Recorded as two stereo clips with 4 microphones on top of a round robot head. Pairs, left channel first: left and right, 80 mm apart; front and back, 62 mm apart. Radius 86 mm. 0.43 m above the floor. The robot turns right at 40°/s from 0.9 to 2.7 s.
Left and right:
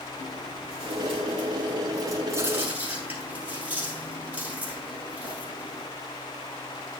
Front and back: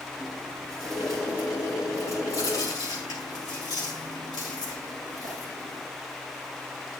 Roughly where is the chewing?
Right.